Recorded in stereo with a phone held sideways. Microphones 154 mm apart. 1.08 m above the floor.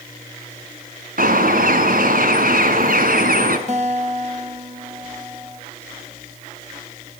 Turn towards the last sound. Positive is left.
turn(degrees=-50)  # may be behind; listen again after turning